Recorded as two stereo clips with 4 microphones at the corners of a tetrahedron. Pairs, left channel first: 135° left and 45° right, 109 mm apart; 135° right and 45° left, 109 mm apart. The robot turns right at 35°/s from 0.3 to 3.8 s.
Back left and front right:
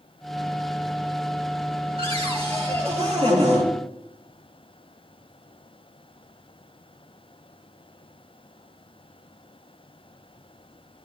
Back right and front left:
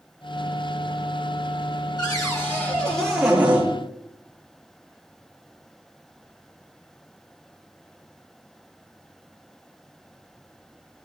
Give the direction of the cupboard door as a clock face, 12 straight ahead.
3 o'clock.